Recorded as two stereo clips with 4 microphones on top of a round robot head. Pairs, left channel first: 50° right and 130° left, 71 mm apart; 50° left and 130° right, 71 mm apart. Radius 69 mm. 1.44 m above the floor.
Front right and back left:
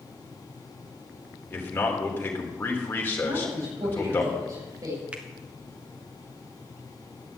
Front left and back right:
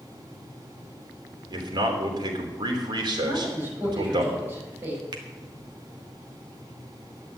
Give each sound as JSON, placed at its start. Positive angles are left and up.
{"t": 1.5, "sound": "a man speaking", "azimuth_deg": -115, "distance_m": 3.0}
{"t": 3.2, "sound": "a man speaking", "azimuth_deg": 170, "distance_m": 8.5}
{"t": 5.1, "sound": "a finger snap", "azimuth_deg": -155, "distance_m": 1.2}